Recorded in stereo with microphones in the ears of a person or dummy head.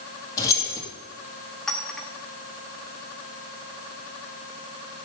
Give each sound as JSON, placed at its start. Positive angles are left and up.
{"t": 0.4, "sound": "keys jangling", "side_deg": 20, "distance_m": 2.0}
{"t": 1.7, "sound": "a clink", "side_deg": 5, "distance_m": 1.4}